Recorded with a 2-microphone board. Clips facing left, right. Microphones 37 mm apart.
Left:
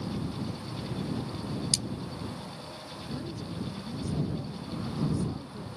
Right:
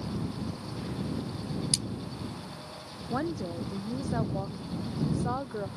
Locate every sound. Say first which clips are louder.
1.7 s cutlery clinking: left 2 dB; 25° right (ahead or behind)
3.1 s a woman speaking: right 7 dB; 70° right (ahead or behind)